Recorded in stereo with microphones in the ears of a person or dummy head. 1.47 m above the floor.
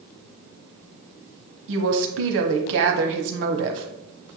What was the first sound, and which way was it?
A woman speaking, 70° right (ahead or behind).